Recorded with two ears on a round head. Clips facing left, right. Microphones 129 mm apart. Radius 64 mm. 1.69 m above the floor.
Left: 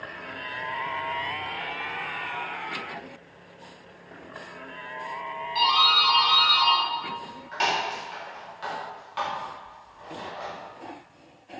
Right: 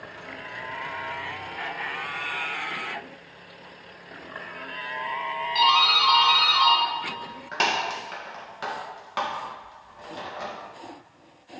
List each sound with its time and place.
5.5 s a doorbell: 60° right (ahead or behind), 1.9 m